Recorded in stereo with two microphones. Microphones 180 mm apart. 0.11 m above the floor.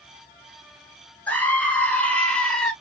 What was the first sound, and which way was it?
A scream, 10° left (ahead or behind).